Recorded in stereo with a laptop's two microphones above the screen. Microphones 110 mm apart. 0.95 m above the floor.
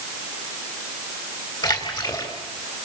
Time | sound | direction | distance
1.6 | a splash | 40° left (ahead or behind) | 3 m